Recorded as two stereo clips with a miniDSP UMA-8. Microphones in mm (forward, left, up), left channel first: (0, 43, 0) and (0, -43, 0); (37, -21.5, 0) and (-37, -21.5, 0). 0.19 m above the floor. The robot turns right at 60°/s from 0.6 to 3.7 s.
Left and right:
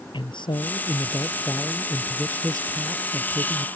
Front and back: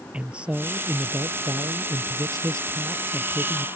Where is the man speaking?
105° left; by 3.7 s 70° right.